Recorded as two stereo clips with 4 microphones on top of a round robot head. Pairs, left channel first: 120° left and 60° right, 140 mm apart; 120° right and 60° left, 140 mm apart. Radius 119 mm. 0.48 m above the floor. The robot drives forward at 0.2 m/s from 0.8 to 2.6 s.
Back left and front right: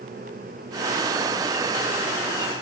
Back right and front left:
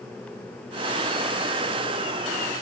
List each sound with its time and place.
Only background noise.